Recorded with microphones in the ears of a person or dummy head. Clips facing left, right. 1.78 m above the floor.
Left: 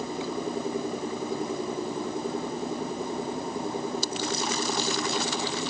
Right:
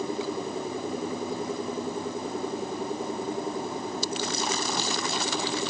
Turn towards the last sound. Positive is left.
No sound to turn to.